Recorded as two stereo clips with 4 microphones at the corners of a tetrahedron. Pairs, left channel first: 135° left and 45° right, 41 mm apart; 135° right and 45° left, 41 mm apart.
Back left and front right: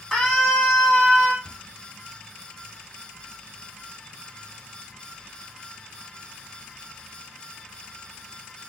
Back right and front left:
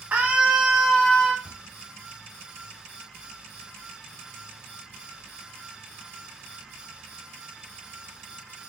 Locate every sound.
0.1 s a scream: 55° left, 1.3 m; by 1.3 s 160° right, 1.1 m
1.4 s a cupboard door: 95° right, 1.6 m